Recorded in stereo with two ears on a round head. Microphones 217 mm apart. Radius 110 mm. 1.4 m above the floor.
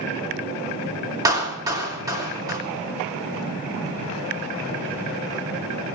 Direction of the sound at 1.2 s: 15° right (ahead or behind).